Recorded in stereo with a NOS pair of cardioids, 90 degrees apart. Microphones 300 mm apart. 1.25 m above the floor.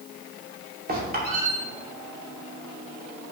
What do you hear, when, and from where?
0.9 s a squeak: 30° right, 2.5 m